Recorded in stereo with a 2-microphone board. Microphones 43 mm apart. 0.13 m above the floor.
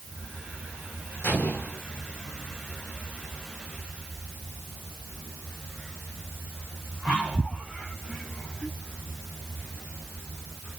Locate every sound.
1.2 s an explosion: 45° left (ahead or behind), 7 m